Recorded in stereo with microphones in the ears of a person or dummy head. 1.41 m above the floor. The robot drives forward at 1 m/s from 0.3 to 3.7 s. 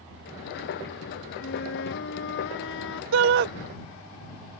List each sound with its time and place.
1.4 s a flute: 60° left (ahead or behind); by 3.0 s 75° left (ahead or behind)
3.1 s a shout: 85° right; by 3.5 s 60° right (ahead or behind)